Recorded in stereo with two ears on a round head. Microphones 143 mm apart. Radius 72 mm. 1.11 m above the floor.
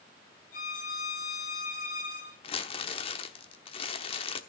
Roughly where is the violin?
Left.